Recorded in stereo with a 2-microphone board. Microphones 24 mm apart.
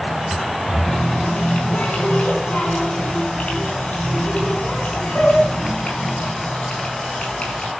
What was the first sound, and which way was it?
A running tap, 70° left (ahead or behind).